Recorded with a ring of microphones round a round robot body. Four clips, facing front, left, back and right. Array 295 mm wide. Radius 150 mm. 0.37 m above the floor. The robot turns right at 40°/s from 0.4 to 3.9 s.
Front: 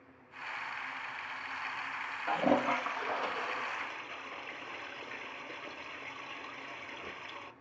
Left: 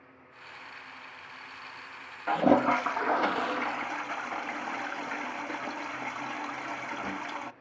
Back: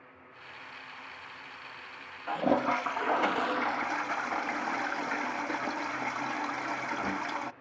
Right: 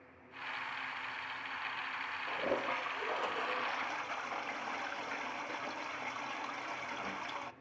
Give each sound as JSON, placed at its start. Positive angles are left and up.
{"t": 2.3, "sound": "a toilet flushing", "azimuth_deg": 90, "distance_m": 0.6}